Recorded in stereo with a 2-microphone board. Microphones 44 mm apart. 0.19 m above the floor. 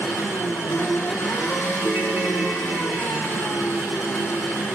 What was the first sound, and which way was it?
An engine running, 70° left (ahead or behind).